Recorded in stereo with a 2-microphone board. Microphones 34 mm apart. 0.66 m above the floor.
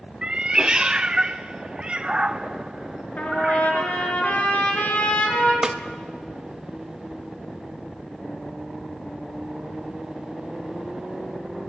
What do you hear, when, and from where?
0.2 s a cat meowing: 25° right (ahead or behind), 0.6 m
3.2 s a trumpet: 45° left (ahead or behind), 4 m
5.6 s a snare drum: 15° right (ahead or behind), 1.0 m